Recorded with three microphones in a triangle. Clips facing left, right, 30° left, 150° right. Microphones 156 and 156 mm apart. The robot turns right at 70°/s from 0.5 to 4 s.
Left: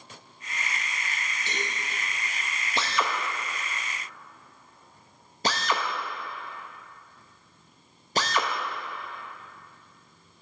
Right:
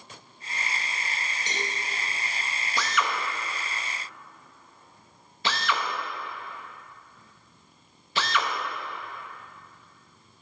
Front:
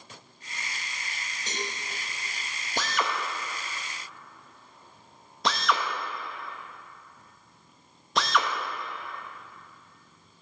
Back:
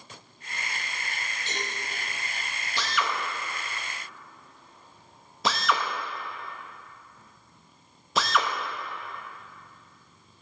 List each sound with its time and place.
1.5 s a cowbell: 20° right, 3 m; by 1.7 s straight ahead, 3 m
2.8 s a drill: 35° left, 0.8 m; by 8.5 s 120° left, 0.8 m